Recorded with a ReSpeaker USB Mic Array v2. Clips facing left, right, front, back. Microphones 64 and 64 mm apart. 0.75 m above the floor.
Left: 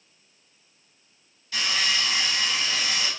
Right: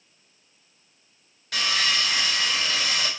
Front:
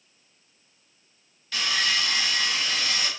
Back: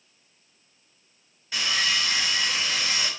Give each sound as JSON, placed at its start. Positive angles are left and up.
{"t": 1.5, "sound": "sawing", "azimuth_deg": -110, "distance_m": 3.5}